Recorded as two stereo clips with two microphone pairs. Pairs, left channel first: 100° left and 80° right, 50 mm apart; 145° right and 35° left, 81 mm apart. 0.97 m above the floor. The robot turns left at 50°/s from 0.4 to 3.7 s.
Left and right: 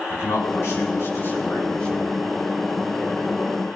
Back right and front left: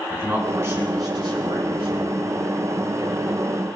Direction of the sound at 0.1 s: 100° left.